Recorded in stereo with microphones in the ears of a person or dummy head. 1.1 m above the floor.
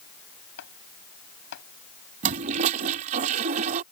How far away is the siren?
I don't hear a siren.